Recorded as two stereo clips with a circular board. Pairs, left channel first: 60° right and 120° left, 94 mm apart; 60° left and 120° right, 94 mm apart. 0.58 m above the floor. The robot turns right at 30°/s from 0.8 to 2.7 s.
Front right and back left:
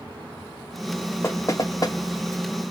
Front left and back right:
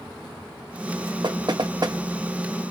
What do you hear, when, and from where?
1.2 s knocking: 115° right, 0.6 m; by 2.0 s 90° right, 0.6 m